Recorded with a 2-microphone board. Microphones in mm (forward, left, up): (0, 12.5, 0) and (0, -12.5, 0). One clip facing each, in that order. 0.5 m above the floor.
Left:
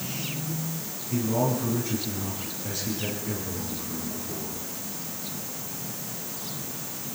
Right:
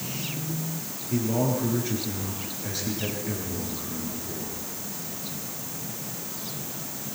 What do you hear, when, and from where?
1.1 s a man speaking: 25° right (ahead or behind), 10 m